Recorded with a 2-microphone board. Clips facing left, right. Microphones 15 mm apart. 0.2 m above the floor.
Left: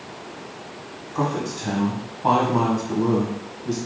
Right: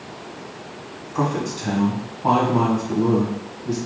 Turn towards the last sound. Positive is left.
turn(degrees=50)  # may be behind; listen again after turning